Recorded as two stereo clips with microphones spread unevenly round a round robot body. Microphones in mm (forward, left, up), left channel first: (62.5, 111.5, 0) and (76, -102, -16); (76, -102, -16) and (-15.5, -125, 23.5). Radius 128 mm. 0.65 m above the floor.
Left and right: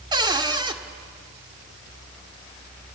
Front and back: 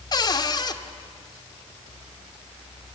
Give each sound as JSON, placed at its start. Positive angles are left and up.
{"t": 0.1, "sound": "a cupboard door", "azimuth_deg": -20, "distance_m": 1.2}